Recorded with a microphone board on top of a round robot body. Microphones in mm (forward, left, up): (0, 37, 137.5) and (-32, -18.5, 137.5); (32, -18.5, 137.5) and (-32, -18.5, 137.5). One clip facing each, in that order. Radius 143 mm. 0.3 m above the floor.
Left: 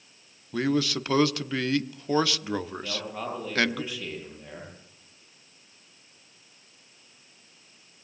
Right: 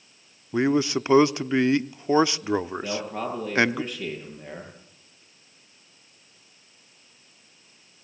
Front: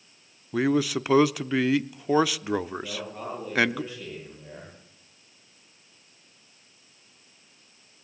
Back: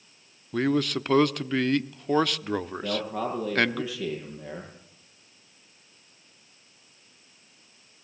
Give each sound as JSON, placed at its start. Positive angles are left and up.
{"t": 0.5, "sound": "a man speaking", "azimuth_deg": -75, "distance_m": 1.1}
{"t": 2.8, "sound": "a man speaking", "azimuth_deg": -170, "distance_m": 9.5}